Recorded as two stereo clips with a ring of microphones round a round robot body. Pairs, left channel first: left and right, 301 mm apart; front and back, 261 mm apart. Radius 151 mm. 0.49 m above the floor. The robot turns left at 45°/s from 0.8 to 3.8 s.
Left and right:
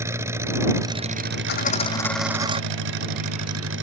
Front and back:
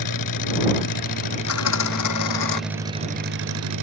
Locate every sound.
0.0 s an engine running: 10° right; by 3.8 s 145° right
1.5 s a dropped coin: 30° left; by 2.6 s 20° right